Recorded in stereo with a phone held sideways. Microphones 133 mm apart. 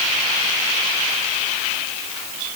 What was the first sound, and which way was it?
Only background noise.